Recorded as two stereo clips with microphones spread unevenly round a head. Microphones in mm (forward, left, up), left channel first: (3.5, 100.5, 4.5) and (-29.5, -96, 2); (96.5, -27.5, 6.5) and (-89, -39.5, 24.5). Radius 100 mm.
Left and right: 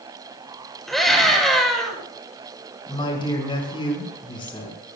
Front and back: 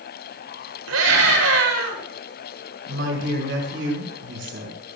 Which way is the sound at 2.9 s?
145° left.